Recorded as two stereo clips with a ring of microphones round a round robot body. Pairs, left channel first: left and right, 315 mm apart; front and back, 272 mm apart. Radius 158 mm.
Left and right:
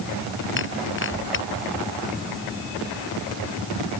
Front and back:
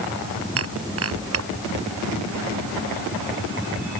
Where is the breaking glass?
145° left.